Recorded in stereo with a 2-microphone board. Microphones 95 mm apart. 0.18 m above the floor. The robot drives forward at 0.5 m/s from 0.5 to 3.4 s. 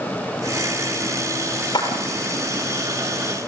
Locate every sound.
1.7 s a clap: 55° left (ahead or behind), 4 m